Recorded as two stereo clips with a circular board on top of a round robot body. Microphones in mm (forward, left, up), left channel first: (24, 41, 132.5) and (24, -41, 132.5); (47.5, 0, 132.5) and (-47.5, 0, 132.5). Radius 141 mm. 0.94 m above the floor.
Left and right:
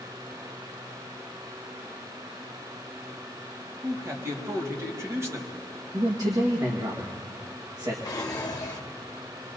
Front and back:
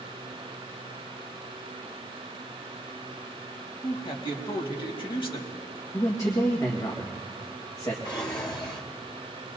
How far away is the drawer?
About 1.1 m.